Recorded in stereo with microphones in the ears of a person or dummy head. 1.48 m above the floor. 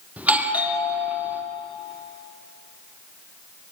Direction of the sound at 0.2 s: 5° right (ahead or behind).